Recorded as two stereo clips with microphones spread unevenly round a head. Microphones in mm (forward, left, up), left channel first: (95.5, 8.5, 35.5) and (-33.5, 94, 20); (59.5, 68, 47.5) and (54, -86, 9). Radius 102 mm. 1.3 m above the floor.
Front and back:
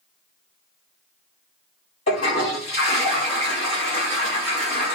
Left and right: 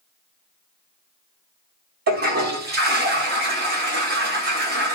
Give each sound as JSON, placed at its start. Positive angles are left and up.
{"t": 2.1, "sound": "a toilet flushing", "azimuth_deg": -85, "distance_m": 1.2}